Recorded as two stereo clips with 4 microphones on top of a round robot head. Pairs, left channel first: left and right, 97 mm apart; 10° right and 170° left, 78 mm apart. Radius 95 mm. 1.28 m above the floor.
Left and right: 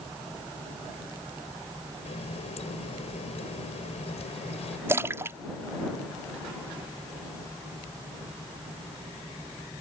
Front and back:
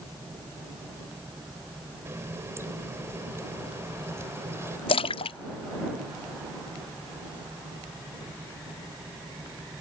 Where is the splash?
20° right.